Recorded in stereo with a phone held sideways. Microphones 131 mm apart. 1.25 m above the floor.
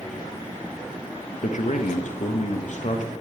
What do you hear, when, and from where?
1.4 s a man speaking: 65° left (ahead or behind), 1.0 m